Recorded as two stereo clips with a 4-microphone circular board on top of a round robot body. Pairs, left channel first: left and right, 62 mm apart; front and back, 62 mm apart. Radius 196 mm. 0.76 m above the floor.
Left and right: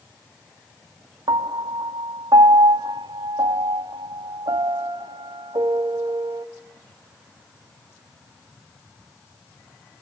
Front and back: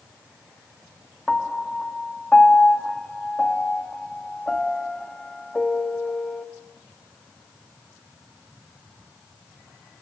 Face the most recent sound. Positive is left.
turn(degrees=-80)